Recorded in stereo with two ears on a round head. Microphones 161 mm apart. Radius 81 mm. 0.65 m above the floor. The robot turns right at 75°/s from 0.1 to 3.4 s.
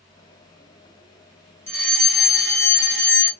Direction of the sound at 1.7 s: 10° left (ahead or behind).